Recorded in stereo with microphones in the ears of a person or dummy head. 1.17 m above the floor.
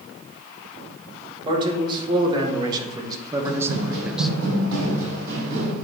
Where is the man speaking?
25° right (ahead or behind), 1.9 m; by 4.3 s 5° left (ahead or behind), 0.5 m.